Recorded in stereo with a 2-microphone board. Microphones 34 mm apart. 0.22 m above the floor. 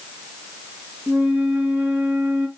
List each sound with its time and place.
1.1 s a flute: 55° right (ahead or behind), 3 m